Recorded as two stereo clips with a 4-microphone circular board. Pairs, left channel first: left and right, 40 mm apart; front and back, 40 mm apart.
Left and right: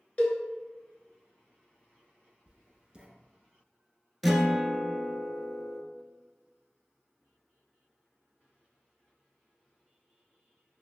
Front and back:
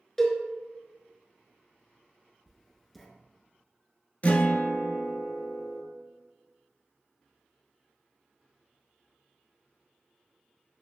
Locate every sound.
0.2 s a cowbell: 75° left, 0.8 m
2.5 s writing: 85° right, 0.7 m
4.2 s a guitar: straight ahead, 0.6 m